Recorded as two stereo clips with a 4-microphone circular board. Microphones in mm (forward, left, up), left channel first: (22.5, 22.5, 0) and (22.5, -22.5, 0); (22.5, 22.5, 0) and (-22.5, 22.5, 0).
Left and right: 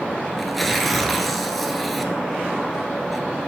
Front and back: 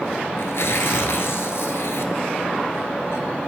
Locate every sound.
0.4 s tearing paper: 5° left, 1.0 m